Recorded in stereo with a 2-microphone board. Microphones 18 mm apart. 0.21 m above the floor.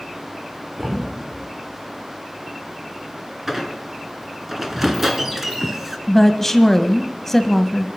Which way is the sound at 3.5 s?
20° right (ahead or behind).